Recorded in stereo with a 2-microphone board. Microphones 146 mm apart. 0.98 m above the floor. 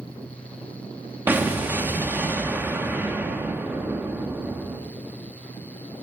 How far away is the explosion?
About 0.9 m.